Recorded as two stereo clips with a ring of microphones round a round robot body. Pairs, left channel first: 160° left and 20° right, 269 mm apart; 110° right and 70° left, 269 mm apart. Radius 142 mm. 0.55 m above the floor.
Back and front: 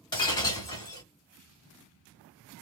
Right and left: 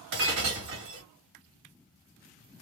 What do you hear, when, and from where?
0.1 s breaking glass: 85° left, 1.2 m